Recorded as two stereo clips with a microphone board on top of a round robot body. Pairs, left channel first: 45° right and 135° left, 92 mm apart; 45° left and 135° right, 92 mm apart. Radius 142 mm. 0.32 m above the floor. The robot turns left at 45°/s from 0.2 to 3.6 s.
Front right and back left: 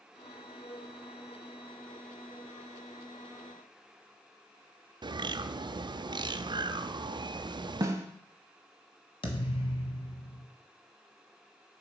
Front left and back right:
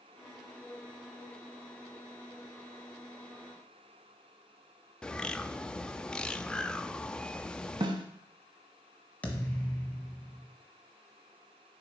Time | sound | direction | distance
5.0 | a bird | 125° left | 0.5 m
7.8 | a snare drum | 165° right | 0.7 m
9.2 | a thud | 30° right | 1.5 m